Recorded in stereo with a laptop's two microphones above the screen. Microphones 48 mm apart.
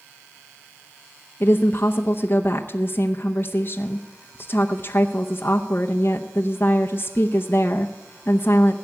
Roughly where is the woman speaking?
Left.